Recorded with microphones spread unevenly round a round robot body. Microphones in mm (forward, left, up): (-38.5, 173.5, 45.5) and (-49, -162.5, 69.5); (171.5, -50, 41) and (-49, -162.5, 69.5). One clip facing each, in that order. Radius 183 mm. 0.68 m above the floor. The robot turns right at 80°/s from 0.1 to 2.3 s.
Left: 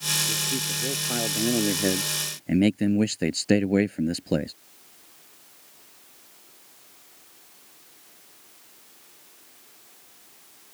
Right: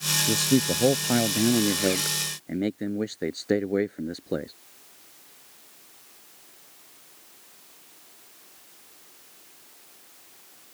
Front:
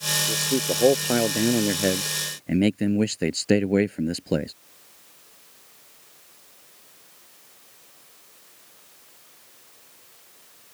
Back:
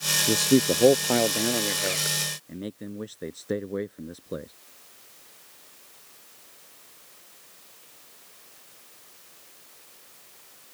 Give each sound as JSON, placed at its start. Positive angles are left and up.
{"t": 0.3, "sound": "a man speaking", "azimuth_deg": -120}